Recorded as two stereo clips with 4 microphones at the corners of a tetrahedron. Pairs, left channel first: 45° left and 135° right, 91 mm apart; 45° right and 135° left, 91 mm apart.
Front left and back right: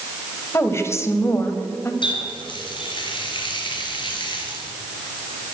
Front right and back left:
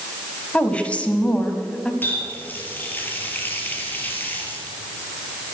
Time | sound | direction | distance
0.5 | a woman speaking | 20° left | 1.6 m
2.0 | a running tap | 20° left | 3 m